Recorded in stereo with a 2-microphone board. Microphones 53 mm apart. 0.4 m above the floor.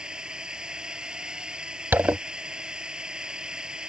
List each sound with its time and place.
0.0 s a drone: 15° right (ahead or behind)
1.9 s a zipper: 45° right (ahead or behind)